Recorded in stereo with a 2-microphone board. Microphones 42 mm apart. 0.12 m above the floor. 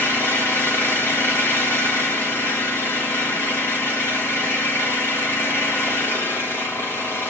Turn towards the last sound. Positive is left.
turn(degrees=75)  # may be behind; listen again after turning